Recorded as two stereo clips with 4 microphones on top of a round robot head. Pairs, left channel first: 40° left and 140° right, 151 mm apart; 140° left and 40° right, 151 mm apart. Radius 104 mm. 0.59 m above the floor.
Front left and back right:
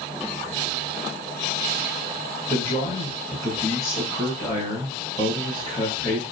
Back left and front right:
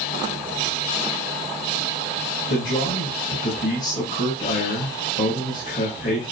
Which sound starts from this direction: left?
A man speaking, at 2.5 s.